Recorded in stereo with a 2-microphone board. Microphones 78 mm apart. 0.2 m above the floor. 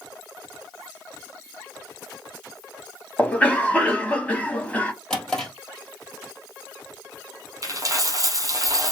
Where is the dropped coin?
45° right (ahead or behind), 0.9 m.